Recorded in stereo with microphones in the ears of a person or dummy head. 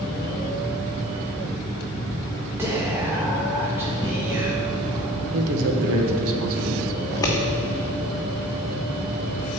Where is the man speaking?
80° right, 1.3 m.